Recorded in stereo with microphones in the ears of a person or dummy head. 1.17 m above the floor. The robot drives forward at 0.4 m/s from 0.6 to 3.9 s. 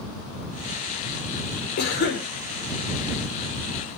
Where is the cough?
50° left (ahead or behind), 4.5 m.